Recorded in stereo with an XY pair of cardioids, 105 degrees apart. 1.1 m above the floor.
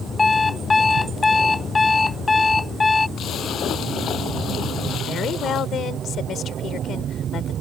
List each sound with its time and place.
0.2 s an alarm clock: 30° left
3.2 s a splash: 65° left
5.0 s a woman speaking: 65° left